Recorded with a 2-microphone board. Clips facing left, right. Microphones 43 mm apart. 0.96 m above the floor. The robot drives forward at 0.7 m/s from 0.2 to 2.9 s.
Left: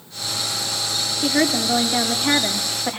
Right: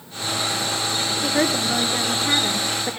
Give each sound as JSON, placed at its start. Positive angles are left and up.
{"t": 1.2, "sound": "a woman speaking", "side_deg": 55, "distance_m": 2.5}